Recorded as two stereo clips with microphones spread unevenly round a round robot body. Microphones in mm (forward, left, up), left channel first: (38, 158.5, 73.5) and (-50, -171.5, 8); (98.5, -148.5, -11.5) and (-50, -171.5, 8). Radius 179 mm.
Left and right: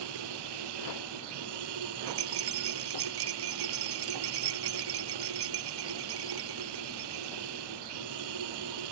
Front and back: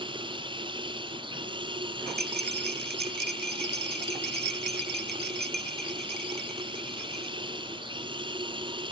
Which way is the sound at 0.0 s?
115° right.